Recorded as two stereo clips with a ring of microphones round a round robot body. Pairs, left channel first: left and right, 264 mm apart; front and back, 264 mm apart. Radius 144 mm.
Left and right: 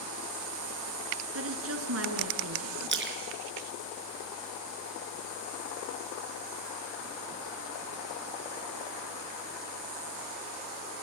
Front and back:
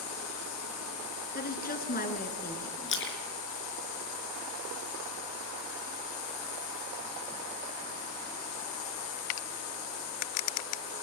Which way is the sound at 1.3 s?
55° right.